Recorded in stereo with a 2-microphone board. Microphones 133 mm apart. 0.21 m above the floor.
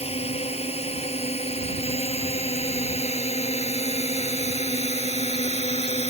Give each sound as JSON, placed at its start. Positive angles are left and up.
{"t": 0.0, "sound": "a drone", "side_deg": 50}